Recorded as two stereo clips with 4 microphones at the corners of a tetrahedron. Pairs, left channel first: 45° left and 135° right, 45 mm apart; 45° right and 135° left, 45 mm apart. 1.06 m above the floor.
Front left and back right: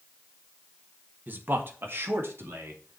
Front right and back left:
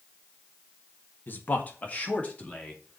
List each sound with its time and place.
1.3 s a man speaking: 90° right, 1.5 m; by 3.0 s 110° right, 3 m